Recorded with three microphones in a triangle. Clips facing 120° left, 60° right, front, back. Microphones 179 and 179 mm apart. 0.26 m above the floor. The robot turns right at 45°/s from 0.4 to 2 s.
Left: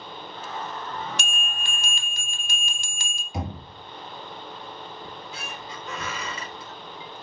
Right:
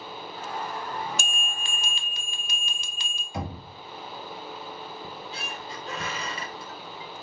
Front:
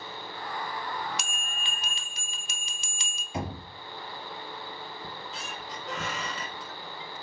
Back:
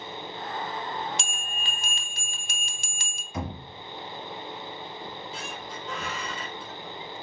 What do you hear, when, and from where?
1.2 s a bell: 120° left, 0.5 m; by 3.2 s 155° left, 0.5 m
3.3 s knocking: 55° left, 1.2 m
5.0 s a squeak: 5° right, 0.8 m